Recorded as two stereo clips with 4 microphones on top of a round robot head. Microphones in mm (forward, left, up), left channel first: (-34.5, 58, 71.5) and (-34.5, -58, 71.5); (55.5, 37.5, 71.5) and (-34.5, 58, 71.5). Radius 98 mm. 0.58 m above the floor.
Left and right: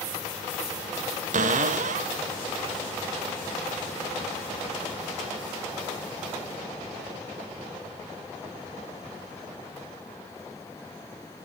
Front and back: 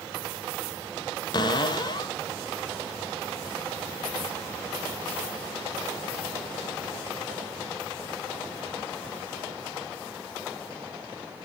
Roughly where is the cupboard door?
Ahead right.